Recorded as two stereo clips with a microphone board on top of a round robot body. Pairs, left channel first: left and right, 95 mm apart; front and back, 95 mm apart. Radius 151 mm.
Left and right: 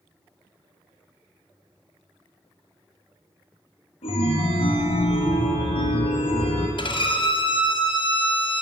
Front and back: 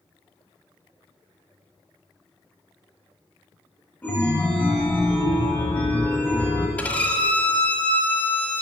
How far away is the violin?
About 1.4 m.